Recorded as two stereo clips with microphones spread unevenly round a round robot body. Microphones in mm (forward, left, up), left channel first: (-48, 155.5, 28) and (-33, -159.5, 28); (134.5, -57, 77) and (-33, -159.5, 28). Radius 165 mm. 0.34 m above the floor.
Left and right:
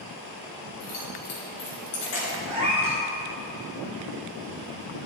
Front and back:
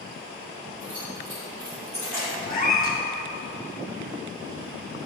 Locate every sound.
0.8 s keys jangling: 130° left, 3 m; by 2.4 s 120° left, 3.5 m
2.5 s a cat meowing: 15° right, 2.5 m